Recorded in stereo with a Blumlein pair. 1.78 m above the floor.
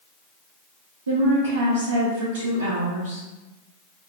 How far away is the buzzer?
I don't hear a buzzer.